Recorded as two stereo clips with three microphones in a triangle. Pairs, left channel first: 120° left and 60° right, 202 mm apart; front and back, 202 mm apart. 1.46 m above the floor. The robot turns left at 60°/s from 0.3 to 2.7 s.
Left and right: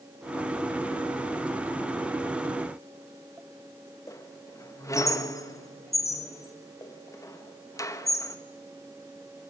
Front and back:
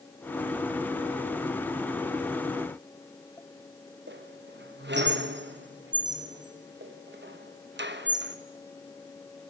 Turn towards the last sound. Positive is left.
turn(degrees=-170)